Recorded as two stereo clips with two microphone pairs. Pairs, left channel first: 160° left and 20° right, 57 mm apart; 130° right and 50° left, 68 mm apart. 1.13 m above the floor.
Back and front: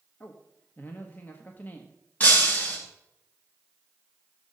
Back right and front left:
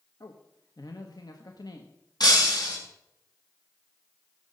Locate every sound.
0.2 s a man speaking: 145° right, 1.2 m
2.2 s breaking glass: 135° right, 4.5 m